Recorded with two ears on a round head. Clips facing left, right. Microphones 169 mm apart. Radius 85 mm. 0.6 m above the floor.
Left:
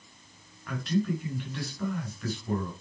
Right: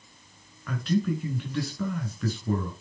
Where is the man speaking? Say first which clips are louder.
Right 2 dB; 70° right (ahead or behind), 4.5 m.